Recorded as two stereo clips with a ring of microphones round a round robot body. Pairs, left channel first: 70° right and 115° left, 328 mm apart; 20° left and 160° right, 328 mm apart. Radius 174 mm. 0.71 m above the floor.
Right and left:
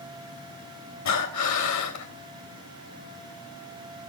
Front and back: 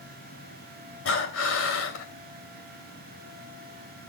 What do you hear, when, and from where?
1.1 s breathing: 30° right, 2.5 m